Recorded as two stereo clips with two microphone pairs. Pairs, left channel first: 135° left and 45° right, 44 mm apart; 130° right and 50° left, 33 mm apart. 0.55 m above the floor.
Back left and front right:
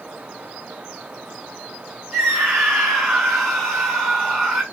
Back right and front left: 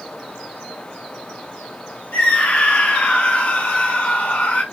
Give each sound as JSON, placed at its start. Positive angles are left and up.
{"t": 2.1, "sound": "a scream", "azimuth_deg": -140, "distance_m": 4.5}